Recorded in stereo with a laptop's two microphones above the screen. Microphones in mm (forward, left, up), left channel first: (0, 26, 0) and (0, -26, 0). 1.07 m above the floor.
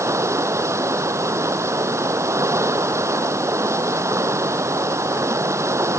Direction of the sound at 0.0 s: 70° right (ahead or behind).